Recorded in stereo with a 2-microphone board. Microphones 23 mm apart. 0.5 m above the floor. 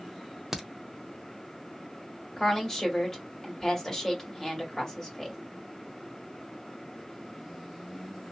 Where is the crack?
20° right (ahead or behind), 0.6 m.